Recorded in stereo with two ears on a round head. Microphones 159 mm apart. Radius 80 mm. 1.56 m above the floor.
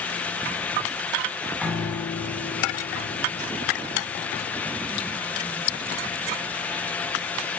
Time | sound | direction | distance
1.6 | a piano | centre (ahead or behind) | 8.5 m